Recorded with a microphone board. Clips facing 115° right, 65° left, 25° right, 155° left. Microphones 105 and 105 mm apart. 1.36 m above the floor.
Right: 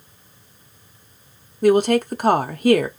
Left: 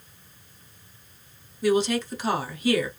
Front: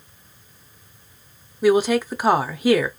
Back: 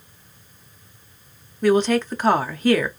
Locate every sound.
1.6 s a woman speaking: 100° right, 0.5 m